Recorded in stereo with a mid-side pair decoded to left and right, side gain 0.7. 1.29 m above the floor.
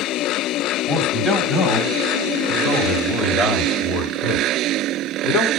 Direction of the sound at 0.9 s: 20° left.